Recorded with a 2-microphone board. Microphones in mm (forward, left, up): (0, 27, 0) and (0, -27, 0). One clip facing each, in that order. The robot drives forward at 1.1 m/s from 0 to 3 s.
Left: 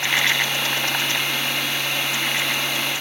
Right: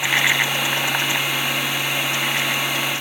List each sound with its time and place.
Only background noise.